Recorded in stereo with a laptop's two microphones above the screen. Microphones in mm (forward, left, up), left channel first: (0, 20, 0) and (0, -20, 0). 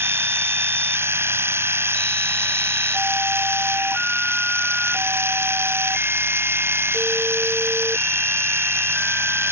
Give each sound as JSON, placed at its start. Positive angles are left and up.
{"t": 0.0, "sound": "a machine running", "side_deg": -80}